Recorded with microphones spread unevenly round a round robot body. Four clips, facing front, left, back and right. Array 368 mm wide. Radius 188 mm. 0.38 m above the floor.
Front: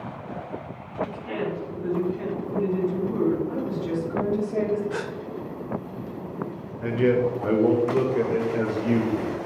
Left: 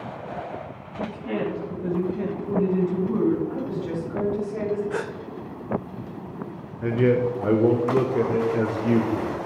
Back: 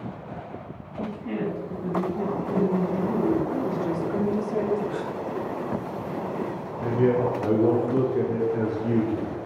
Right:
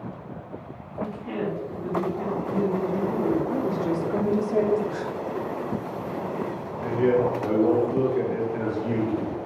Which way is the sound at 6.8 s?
100° left.